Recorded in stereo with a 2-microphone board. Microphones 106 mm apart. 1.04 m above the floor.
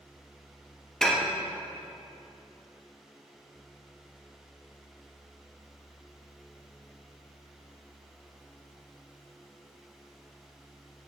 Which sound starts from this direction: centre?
Dishes clattering, at 1.0 s.